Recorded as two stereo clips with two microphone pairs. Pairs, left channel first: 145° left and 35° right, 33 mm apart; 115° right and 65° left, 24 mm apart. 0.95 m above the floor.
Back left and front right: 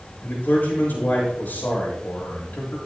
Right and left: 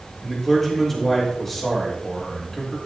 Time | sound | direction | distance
0.2 | a man speaking | 160° left | 3.5 m